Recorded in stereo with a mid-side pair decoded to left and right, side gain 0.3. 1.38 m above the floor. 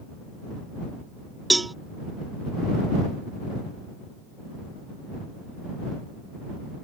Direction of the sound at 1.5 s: 25° right.